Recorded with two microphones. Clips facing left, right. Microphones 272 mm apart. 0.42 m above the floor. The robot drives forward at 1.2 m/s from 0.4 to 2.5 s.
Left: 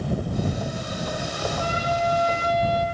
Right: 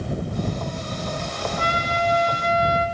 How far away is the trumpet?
About 5 m.